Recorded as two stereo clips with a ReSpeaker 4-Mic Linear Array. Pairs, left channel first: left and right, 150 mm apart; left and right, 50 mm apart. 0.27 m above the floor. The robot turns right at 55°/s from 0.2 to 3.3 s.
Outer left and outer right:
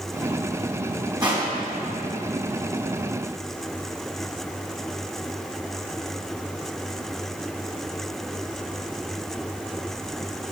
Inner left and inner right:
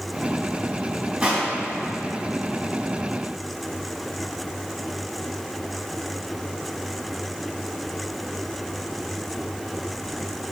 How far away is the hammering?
No hammering in this recording.